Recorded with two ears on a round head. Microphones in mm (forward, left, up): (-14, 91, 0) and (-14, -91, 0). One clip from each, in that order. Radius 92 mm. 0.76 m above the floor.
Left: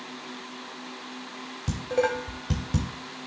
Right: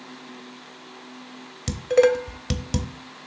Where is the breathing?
I don't hear breathing.